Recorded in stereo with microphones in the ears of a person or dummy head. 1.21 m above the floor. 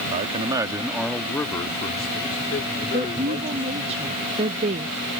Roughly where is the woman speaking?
Right.